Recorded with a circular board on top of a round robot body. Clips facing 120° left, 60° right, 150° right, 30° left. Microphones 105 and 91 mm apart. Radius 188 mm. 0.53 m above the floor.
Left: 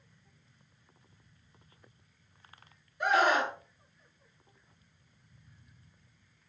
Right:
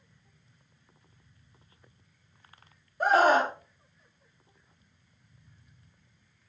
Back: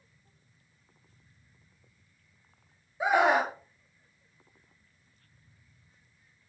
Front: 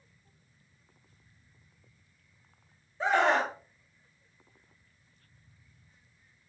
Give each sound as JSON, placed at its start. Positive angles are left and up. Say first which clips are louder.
{"t": 3.0, "sound": "a scream", "louder": "right 5 dB, back 2 dB", "azimuth_deg": -75, "distance_m": 0.7}